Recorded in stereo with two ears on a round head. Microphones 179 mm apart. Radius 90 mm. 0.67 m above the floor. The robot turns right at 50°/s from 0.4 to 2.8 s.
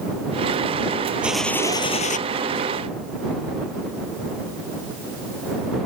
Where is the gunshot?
5° right; by 2.2 s 40° left.